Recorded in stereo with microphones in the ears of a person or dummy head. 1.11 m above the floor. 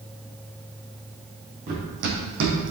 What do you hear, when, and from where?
1.7 s running footsteps: 50° right (ahead or behind), 2.5 m; by 2.7 s 65° right (ahead or behind), 3.5 m